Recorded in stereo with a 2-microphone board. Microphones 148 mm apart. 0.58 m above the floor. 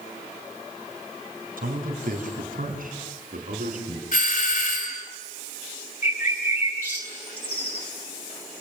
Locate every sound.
1.6 s a man speaking: 75° right (ahead or behind), 4 m; by 4.0 s 65° right (ahead or behind), 6.5 m
4.1 s a doorbell: 70° left (ahead or behind), 2.5 m
6.0 s a bird: 15° right (ahead or behind), 7.5 m